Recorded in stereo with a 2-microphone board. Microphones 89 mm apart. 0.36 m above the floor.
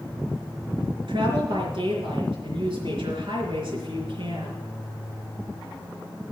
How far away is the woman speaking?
About 4.5 m.